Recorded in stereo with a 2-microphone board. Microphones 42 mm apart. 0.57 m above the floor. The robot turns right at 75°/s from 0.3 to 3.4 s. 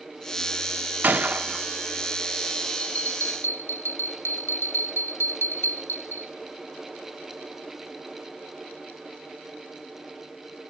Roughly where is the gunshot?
Right.